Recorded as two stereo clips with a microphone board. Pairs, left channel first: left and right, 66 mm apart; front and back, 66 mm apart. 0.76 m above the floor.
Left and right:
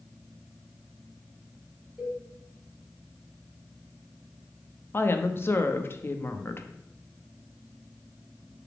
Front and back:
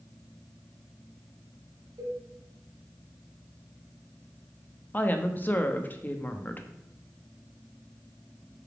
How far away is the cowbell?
About 3 m.